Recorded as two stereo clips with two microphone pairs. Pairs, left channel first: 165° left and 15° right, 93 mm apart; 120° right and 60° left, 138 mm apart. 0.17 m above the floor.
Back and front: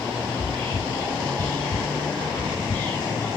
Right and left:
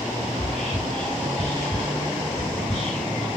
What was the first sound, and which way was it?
Whispering, 165° left.